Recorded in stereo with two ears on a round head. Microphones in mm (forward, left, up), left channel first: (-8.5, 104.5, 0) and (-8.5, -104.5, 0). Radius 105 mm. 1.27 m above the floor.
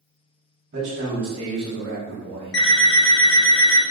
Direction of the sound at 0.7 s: 50° right (ahead or behind).